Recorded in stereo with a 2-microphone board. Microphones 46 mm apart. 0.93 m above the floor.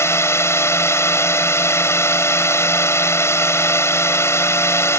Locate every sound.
0.0 s a drone: 70° left (ahead or behind)